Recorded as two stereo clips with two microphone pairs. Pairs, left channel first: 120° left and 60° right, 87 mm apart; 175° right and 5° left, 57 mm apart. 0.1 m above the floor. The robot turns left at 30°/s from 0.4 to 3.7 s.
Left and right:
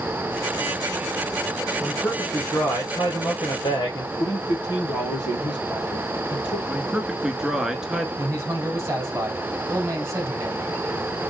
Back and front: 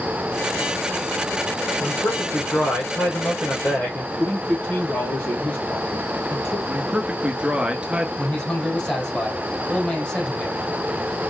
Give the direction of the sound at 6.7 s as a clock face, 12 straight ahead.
12 o'clock.